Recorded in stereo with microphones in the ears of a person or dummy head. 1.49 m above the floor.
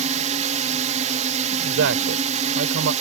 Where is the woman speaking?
70° right (ahead or behind).